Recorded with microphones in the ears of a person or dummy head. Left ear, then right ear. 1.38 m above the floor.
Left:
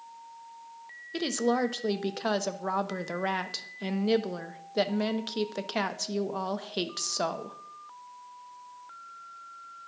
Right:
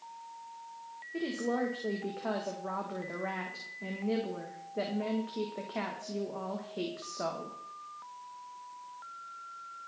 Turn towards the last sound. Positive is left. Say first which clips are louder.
# left 6 dB
turn(degrees=75)  # may be behind; listen again after turning